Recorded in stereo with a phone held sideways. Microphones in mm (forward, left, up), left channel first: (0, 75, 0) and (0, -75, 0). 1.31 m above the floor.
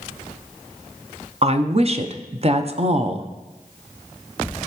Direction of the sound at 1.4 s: 45° right (ahead or behind).